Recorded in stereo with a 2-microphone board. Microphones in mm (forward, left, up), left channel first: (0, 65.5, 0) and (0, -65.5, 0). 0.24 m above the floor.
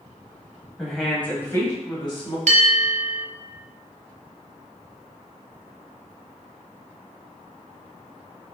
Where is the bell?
65° right (ahead or behind), 0.6 m.